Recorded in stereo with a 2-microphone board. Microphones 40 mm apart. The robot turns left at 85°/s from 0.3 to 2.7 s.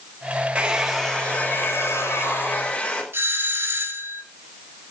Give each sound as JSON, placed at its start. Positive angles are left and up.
{"t": 0.6, "sound": "a hair dryer", "azimuth_deg": -150, "distance_m": 5.0}
{"t": 3.1, "sound": "a doorbell", "side_deg": -70, "distance_m": 4.0}